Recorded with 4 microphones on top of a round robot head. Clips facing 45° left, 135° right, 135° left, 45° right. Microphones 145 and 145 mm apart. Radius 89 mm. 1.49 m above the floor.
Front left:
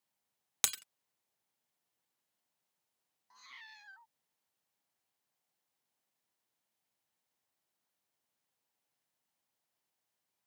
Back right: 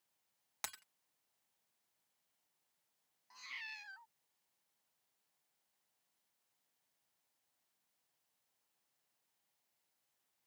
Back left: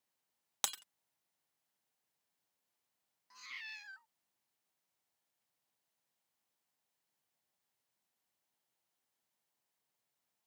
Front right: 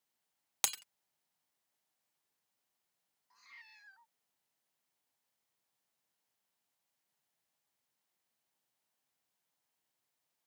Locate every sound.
0.6 s breaking glass: 35° left
3.3 s a cat meowing: 150° left